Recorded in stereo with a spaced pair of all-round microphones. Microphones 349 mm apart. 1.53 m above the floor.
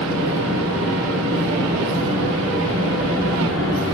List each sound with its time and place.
0.0 s a fan: 40° right (ahead or behind), 1.4 m